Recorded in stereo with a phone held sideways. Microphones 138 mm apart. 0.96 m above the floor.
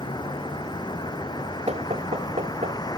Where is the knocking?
50° right (ahead or behind).